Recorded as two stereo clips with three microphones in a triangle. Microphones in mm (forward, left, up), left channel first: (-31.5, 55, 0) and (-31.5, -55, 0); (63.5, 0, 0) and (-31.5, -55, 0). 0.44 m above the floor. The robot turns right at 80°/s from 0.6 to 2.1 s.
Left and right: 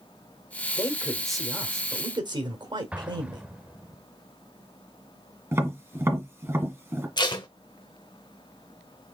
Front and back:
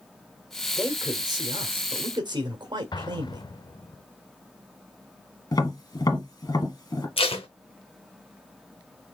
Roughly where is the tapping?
Ahead right.